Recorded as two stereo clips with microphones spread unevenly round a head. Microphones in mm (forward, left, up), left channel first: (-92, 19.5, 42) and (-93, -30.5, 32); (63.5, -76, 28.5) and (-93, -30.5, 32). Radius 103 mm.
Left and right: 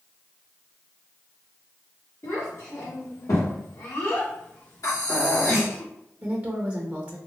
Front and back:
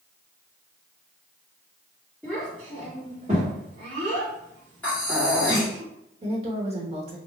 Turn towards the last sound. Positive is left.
turn(degrees=-145)